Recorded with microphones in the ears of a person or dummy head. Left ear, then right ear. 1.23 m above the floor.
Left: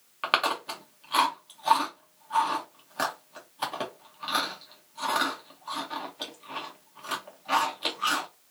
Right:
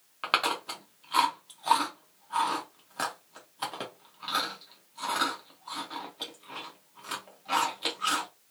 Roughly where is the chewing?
Centre.